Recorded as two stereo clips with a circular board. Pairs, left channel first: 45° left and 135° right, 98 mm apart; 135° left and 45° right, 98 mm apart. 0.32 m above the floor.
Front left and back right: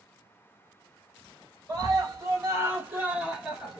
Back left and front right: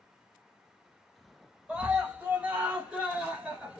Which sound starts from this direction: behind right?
A scream, at 1.7 s.